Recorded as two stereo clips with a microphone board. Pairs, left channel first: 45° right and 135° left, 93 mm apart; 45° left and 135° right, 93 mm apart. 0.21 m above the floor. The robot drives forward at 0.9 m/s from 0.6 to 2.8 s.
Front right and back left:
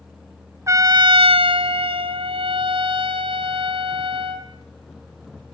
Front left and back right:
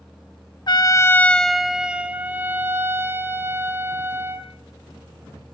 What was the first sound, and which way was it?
A trumpet, 80° left.